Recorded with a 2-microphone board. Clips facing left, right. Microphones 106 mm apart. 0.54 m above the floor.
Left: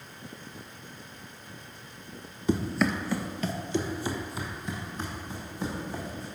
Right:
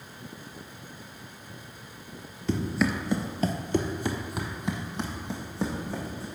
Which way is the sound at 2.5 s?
15° left (ahead or behind).